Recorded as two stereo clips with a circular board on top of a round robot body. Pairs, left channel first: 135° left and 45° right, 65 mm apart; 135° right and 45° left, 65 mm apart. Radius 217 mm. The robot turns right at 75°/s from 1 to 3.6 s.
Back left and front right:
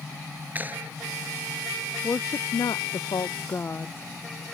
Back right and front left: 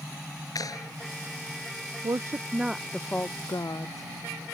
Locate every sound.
0.6 s a clap: 110° right
2.0 s a woman speaking: 75° left; by 4.1 s 165° right